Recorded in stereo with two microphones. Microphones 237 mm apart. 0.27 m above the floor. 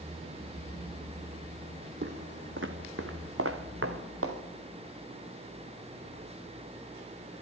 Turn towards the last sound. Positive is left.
turn(degrees=-65)  # may be behind; listen again after turning